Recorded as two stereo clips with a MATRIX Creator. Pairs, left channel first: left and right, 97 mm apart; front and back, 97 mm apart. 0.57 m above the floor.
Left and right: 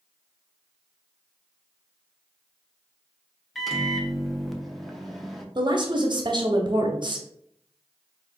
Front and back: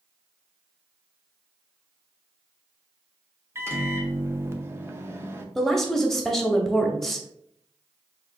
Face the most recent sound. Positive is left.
turn(degrees=-85)